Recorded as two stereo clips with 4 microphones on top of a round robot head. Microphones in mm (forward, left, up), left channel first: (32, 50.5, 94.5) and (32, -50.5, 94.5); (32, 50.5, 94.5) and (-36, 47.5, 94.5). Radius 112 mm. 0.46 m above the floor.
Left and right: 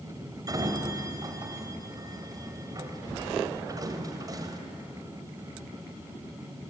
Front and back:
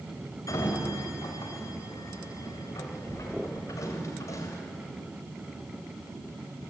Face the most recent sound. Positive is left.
turn(degrees=-40)